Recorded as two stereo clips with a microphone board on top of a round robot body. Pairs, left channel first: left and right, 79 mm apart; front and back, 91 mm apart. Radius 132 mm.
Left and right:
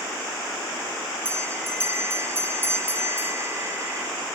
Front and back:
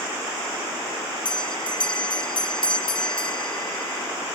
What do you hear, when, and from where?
1.2 s a bell: 30° right, 1.4 m